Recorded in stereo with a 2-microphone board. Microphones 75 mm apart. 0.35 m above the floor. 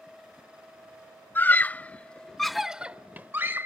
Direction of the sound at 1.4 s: 25° left (ahead or behind).